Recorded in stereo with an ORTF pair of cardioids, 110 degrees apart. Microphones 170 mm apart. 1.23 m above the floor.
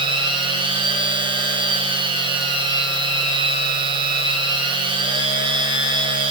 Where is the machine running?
30° right, 3.5 m.